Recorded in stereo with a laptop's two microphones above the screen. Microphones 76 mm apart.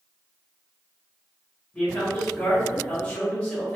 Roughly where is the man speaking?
Centre.